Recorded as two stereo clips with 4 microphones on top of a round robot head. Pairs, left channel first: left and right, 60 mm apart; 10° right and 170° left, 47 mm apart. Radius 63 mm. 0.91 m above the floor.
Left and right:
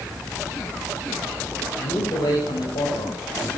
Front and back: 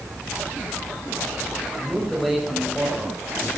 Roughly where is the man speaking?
Left.